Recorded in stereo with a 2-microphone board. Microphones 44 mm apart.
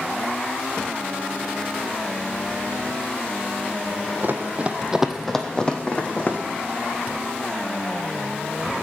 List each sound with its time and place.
4.2 s running footsteps: 50° right (ahead or behind), 1.0 m; by 6.4 s 35° left (ahead or behind), 1.6 m